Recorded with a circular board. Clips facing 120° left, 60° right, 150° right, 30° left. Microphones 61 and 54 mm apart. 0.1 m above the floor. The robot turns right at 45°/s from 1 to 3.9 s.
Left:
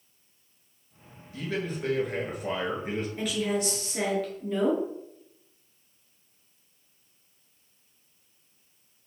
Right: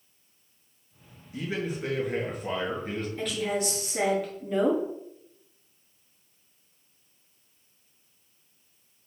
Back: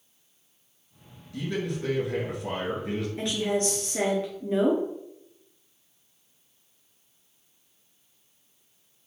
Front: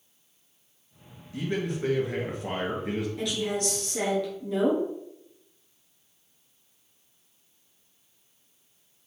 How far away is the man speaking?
About 1.4 m.